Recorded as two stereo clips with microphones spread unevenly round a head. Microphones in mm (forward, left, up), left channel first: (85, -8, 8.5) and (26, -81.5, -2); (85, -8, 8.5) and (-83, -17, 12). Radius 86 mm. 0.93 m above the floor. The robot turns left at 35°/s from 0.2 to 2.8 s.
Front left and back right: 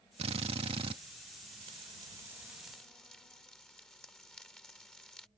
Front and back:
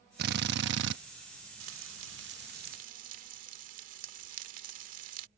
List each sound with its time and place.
0.2 s a drill: 150° right; by 1.0 s 175° right
1.6 s frying: straight behind; by 5.3 s 135° left